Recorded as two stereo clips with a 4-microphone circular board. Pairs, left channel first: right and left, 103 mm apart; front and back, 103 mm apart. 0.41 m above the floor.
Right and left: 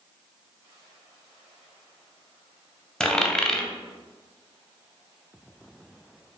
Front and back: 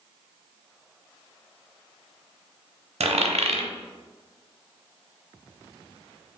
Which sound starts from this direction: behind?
A dropped coin, at 3.0 s.